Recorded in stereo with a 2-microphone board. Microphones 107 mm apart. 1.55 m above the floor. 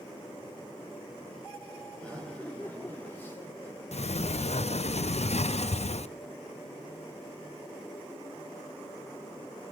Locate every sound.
2.0 s laughter: 10° left (ahead or behind), 4 m; by 3.8 s 25° left (ahead or behind), 3 m
3.9 s a sliding door: 70° left (ahead or behind), 0.6 m